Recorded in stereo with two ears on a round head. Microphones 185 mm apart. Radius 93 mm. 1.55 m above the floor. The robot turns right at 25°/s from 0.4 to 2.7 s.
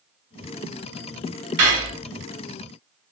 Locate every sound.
1.6 s cutlery clinking: 55° right (ahead or behind), 1.3 m